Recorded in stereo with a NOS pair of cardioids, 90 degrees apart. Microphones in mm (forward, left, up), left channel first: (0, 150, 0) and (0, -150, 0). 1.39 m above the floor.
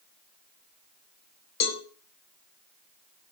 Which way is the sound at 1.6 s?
60° left.